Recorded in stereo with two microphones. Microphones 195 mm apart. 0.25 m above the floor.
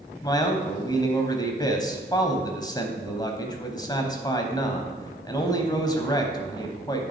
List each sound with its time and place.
0.2 s a man speaking: 20° left (ahead or behind), 1.1 m